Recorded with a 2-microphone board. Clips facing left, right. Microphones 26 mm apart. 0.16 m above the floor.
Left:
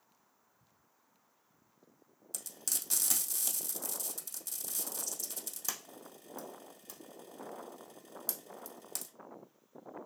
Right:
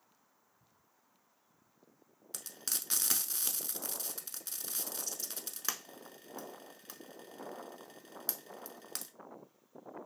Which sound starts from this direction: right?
Frying, at 2.3 s.